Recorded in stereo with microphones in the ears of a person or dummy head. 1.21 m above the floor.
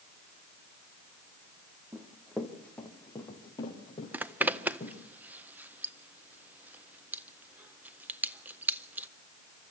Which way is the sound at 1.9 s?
10° right (ahead or behind).